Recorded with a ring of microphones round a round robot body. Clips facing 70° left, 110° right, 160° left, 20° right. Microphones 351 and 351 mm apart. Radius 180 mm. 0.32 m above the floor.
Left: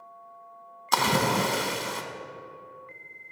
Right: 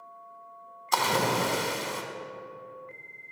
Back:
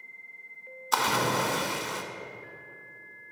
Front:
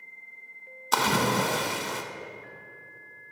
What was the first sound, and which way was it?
A splash, 35° left.